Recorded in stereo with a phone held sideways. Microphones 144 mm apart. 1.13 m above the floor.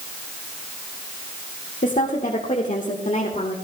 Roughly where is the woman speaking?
Left.